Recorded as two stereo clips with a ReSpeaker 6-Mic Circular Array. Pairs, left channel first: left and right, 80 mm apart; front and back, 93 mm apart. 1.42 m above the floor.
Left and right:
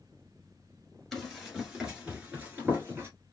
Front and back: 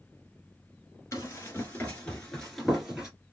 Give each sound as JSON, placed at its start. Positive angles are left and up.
{"t": 1.1, "sound": "running footsteps", "azimuth_deg": 0, "distance_m": 1.5}